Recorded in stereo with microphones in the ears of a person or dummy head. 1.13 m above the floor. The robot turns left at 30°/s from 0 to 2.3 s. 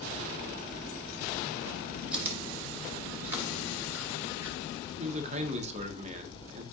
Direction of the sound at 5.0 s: 30° right (ahead or behind).